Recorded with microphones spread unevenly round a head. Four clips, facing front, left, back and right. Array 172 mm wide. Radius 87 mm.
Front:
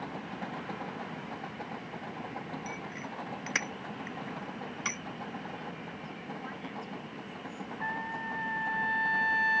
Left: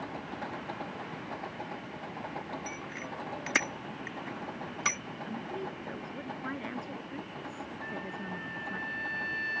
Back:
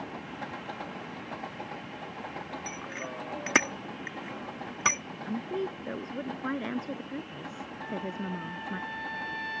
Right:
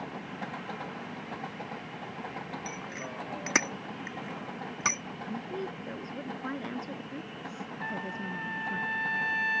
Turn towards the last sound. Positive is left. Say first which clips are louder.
# right 5 dB, back 1 dB
turn(degrees=-25)